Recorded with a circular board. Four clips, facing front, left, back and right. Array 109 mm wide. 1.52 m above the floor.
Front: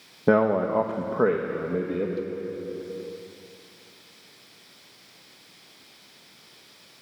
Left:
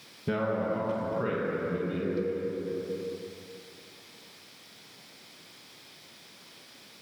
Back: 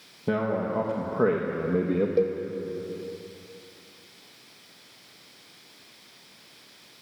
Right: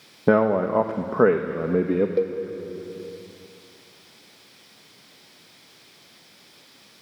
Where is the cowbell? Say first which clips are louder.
Right 7 dB, back 7 dB; 130° right, 1.0 m.